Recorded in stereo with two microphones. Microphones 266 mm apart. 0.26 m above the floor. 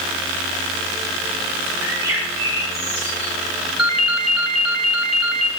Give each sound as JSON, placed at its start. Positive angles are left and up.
{"t": 1.8, "sound": "a bird", "side_deg": -10, "distance_m": 5.0}
{"t": 3.8, "sound": "a ringtone", "side_deg": 55, "distance_m": 1.3}